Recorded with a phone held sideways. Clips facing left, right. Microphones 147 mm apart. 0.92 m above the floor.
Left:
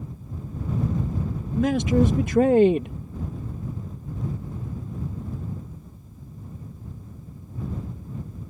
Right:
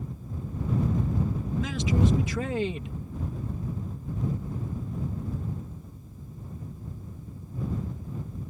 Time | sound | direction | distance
1.6 | a man speaking | 55° left (ahead or behind) | ?